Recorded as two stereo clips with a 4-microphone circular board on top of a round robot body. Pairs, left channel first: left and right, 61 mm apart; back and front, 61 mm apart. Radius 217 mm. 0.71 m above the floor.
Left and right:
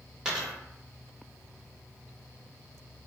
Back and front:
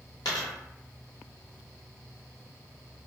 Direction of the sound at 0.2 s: 175° right.